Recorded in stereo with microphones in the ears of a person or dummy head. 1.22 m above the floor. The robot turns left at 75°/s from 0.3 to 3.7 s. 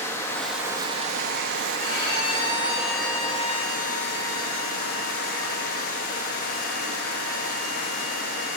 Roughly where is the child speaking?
I don't hear a child speaking.